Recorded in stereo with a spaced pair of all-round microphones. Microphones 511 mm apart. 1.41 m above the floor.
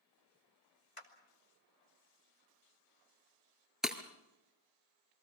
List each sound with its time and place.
1.0 s a clap: 75° left (ahead or behind), 2.5 m
3.8 s breaking glass: centre (ahead or behind), 1.8 m